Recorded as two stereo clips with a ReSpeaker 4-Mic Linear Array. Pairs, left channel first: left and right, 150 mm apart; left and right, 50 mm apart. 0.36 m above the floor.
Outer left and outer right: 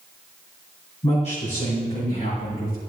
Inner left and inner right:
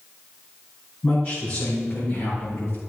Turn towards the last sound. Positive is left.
turn(degrees=70)  # may be behind; listen again after turning